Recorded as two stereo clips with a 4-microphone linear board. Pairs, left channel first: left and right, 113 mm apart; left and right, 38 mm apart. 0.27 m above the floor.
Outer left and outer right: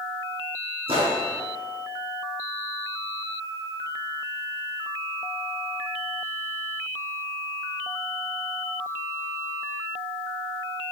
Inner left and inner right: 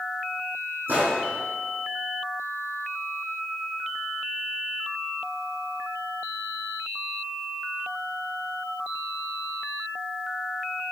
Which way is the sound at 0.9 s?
60° right (ahead or behind).